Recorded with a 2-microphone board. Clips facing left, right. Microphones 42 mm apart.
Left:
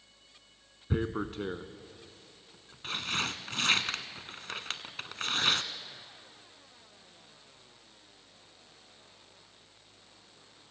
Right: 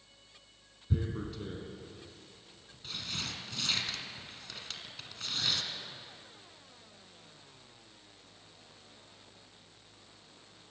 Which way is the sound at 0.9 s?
50° left (ahead or behind).